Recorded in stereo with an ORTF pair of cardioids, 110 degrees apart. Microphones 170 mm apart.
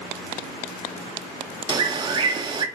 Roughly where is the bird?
Ahead right.